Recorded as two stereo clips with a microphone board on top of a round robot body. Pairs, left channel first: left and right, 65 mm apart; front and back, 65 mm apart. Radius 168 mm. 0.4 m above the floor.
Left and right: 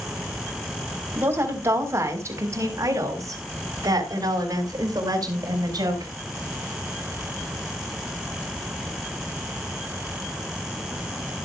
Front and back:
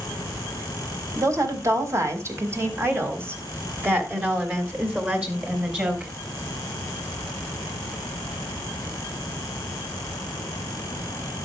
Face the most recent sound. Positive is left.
turn(degrees=-110)